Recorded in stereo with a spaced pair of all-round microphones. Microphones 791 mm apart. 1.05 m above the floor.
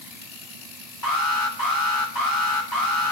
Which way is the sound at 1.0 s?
25° left (ahead or behind).